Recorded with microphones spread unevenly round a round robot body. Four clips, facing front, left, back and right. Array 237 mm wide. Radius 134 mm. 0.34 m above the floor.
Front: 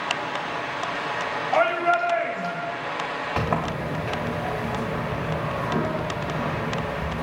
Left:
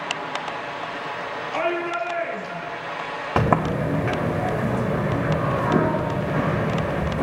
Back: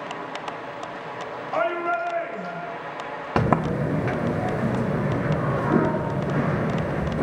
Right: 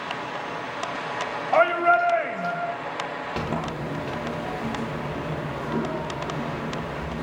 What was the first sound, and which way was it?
A shout, 75° right.